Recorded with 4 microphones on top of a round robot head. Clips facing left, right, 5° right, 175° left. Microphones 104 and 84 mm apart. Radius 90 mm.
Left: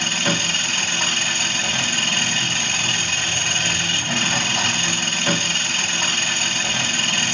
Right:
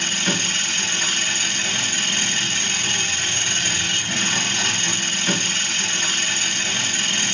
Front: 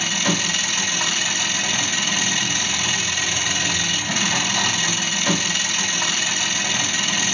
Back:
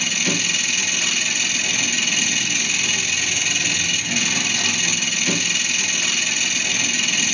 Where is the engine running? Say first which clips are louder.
Left 2 dB, front 2 dB; 45° left, 1.8 m.